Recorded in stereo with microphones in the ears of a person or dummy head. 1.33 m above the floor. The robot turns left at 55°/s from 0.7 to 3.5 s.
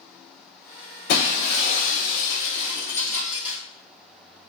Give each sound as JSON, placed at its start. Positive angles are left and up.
{"t": 1.1, "sound": "breaking glass", "azimuth_deg": 120, "distance_m": 1.6}